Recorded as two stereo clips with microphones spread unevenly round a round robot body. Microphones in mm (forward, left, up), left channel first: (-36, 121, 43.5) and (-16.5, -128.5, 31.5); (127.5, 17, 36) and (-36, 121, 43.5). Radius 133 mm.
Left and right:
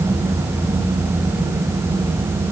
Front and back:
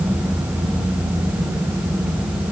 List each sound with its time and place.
Only background noise.